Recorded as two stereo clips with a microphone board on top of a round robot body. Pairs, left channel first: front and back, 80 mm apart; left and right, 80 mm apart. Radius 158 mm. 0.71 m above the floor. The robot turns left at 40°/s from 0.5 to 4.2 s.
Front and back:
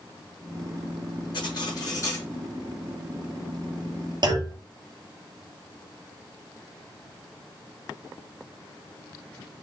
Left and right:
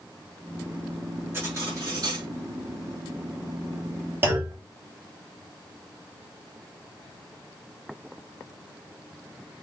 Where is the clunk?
150° right, 3.5 m.